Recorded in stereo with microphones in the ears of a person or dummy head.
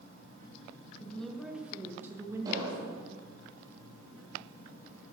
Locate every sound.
1.0 s a woman speaking: 10° left (ahead or behind), 1.7 m; by 3.2 s 30° right (ahead or behind), 2.5 m
2.5 s an explosion: 25° right (ahead or behind), 6.5 m